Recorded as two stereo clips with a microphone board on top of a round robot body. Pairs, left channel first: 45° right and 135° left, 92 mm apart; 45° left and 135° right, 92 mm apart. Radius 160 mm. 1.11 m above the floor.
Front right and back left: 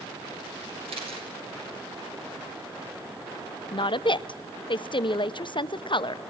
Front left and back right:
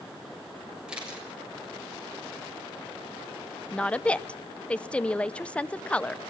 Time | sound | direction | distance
0.9 | a camera shutter | 145° left | 7 m
3.7 | a woman speaking | 30° right | 0.9 m